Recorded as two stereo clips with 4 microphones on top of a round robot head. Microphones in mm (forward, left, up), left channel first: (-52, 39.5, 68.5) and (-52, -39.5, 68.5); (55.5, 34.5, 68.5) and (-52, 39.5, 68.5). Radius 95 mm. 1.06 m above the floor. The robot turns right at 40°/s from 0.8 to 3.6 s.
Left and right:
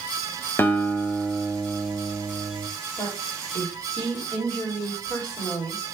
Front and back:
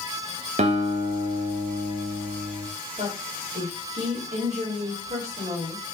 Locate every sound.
0.6 s a guitar: 155° left, 0.8 m; by 2.7 s 130° right, 0.8 m
3.0 s a woman speaking: 145° left, 2 m; by 5.8 s 170° left, 2 m